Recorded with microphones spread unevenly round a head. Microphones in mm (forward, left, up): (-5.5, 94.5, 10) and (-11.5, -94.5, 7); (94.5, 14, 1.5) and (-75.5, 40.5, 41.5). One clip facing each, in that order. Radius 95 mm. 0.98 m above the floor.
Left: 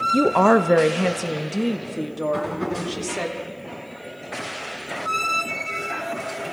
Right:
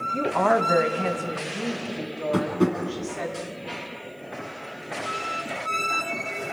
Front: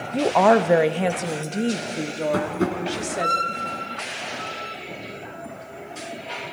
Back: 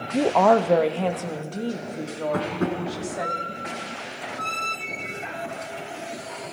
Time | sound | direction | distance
0.1 | a woman speaking | 80° left | 0.7 m
2.3 | tapping | 65° right | 8.5 m